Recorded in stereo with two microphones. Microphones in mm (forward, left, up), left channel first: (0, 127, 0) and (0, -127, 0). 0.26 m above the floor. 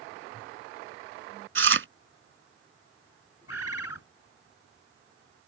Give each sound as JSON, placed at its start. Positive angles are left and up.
{"t": 1.6, "sound": "chewing", "side_deg": -50}
{"t": 3.5, "sound": "a bird", "side_deg": 65}